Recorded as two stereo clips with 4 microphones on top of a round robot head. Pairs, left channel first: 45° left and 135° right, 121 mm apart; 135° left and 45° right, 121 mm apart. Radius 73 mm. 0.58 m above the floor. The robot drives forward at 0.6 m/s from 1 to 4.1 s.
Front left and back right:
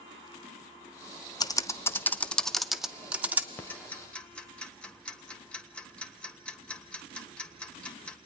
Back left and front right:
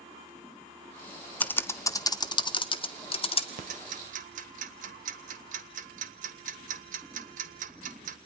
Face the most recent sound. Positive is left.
turn(degrees=-35)